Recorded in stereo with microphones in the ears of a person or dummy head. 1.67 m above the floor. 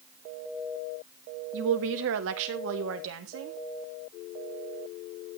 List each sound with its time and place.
1.5 s a woman speaking: 65° right (ahead or behind), 1.0 m; by 3.6 s 80° right, 2 m